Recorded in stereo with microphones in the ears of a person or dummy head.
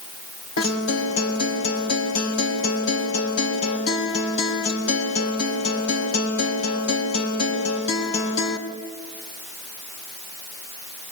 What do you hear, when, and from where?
0.6 s a guitar: 85° left, 3.5 m